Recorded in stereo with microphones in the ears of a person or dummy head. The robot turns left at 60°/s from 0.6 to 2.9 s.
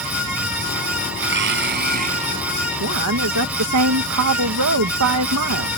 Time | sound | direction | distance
1.2 | a blender | 80° right | ?
2.8 | a woman speaking | 80° right | ?